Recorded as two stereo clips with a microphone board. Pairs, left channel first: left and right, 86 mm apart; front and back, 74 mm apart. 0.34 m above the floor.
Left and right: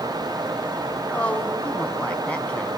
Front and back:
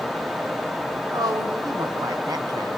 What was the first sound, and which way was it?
A woman speaking, 165° left.